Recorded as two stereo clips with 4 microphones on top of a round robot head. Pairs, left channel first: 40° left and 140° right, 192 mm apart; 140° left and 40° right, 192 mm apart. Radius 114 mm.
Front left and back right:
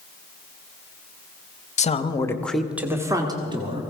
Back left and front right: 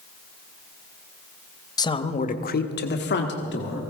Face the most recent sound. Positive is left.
turn(degrees=160)